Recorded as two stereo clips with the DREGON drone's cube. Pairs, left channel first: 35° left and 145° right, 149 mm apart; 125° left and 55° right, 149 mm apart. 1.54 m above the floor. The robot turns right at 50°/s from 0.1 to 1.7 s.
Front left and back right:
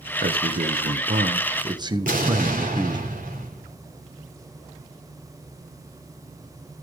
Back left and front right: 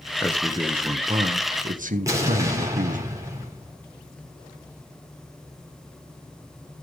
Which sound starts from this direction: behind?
A man speaking, at 0.2 s.